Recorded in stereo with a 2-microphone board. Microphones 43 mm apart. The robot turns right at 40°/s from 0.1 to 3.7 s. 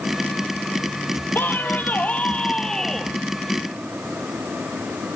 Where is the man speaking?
105° left, 2 m; by 3.2 s straight behind, 2 m.